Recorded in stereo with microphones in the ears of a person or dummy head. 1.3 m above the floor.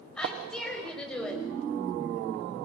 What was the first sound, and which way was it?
A woman speaking, 5° left (ahead or behind).